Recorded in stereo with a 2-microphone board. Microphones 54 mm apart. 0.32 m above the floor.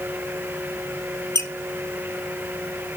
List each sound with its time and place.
1.4 s a squeak: 60° left (ahead or behind), 0.9 m